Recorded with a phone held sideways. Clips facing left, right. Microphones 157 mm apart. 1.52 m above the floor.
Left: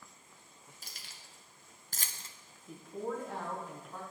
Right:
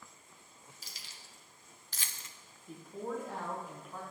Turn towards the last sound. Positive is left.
turn(degrees=0)  # may be behind; listen again after turning